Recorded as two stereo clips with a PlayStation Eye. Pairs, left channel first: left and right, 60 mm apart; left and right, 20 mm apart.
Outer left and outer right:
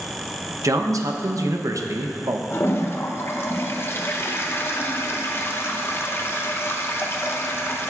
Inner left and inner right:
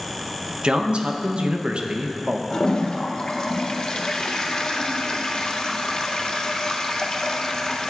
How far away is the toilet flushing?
About 0.6 m.